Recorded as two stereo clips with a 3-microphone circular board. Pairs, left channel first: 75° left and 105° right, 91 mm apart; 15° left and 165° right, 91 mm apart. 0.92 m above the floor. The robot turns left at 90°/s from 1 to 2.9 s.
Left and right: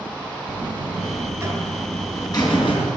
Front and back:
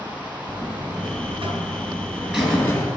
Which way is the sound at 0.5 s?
120° right.